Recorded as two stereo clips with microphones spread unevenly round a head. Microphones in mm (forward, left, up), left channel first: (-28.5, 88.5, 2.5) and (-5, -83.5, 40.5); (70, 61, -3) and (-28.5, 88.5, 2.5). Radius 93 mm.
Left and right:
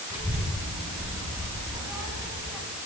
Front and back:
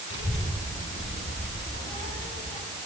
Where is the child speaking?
160° right, 9 m.